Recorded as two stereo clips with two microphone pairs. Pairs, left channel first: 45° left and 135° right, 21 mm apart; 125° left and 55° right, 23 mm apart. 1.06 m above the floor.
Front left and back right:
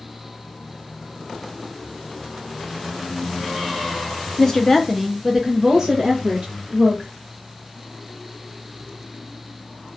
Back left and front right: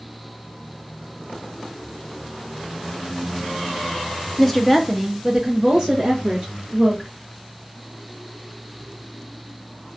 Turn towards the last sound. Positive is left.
turn(degrees=-95)